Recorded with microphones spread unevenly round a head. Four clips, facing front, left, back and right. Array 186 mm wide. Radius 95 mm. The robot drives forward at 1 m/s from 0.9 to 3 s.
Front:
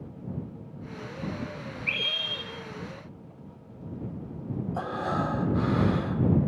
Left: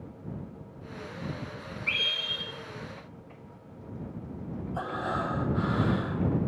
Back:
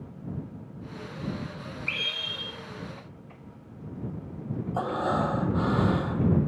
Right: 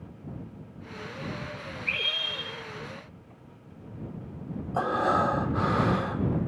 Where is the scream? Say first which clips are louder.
Even, front 2 dB; 65° left, 5 m; by 2.5 s 70° left, 5 m.